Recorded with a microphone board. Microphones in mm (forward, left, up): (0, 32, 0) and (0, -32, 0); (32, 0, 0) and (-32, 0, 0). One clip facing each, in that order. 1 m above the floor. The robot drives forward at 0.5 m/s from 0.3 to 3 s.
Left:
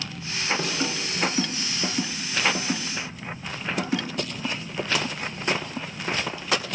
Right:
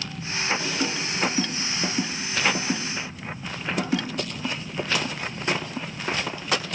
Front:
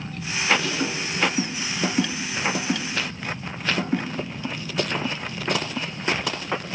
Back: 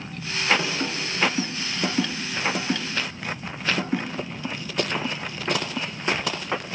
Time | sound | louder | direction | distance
0.6 | a snare drum | even, front 1 dB | 110° left | 3.5 m